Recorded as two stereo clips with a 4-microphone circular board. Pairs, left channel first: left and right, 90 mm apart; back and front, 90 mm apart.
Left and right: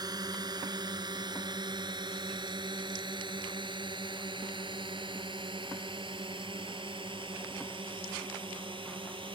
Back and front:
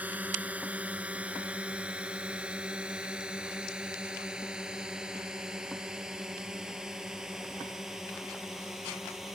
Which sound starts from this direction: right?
A drone, at 0.0 s.